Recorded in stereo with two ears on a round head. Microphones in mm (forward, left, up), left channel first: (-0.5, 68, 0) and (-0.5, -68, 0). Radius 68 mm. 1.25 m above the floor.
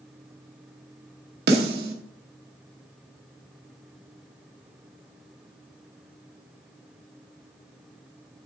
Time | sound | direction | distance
1.5 | a snare drum | 70° right (ahead or behind) | 1.4 m